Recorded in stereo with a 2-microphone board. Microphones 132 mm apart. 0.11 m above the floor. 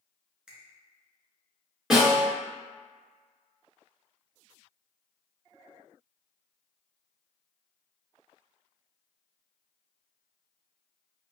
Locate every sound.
0.5 s a finger snap: 5° right (ahead or behind), 0.9 m
1.9 s a snare drum: centre (ahead or behind), 1.8 m